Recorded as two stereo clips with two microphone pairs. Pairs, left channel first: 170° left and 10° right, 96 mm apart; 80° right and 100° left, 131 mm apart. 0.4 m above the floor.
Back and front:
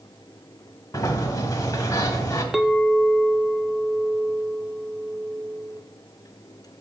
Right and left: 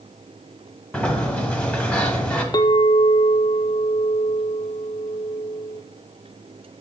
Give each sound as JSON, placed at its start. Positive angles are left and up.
{"t": 0.9, "sound": "a sliding door", "azimuth_deg": -160, "distance_m": 1.1}
{"t": 2.5, "sound": "a clink", "azimuth_deg": -90, "distance_m": 0.5}